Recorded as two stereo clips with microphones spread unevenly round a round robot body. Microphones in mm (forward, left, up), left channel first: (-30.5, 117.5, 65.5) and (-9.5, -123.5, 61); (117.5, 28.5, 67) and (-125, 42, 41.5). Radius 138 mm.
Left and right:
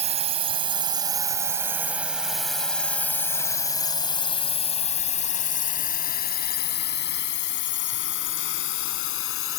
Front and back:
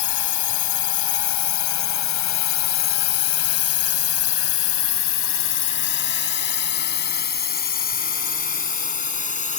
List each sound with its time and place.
0.0 s a drone: 20° right; by 9.6 s 55° left